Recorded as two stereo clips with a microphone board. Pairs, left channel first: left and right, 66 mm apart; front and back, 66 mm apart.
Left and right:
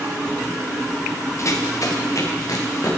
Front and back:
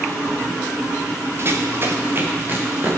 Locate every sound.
1.4 s running footsteps: 130° left, 2 m; by 2.9 s 120° left, 4 m